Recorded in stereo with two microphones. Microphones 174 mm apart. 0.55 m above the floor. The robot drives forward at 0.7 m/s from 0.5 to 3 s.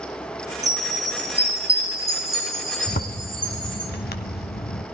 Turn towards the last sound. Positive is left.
turn(degrees=65)  # may be behind; listen again after turning